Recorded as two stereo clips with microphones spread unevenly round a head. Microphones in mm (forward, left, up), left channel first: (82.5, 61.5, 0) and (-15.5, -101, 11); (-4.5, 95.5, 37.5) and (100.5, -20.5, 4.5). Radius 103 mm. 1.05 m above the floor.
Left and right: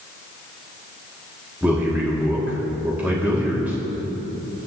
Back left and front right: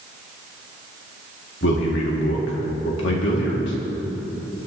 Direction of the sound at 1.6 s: 155° left.